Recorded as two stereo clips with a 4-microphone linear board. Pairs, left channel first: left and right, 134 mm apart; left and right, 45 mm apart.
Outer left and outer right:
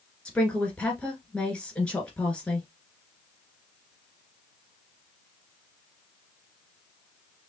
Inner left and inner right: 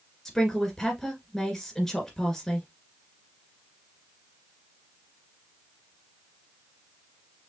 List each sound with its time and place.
0.2 s a woman speaking: 10° left (ahead or behind), 1.9 m